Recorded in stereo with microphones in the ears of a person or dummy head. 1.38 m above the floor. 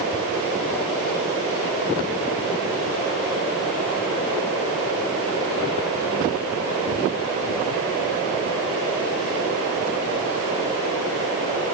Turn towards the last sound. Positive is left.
turn(degrees=-15)  # may be behind; listen again after turning